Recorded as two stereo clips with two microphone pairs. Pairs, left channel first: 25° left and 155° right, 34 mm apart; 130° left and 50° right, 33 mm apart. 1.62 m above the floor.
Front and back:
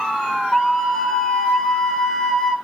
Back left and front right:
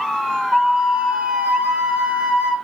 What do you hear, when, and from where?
0.5 s a flute: 40° right, 1.7 m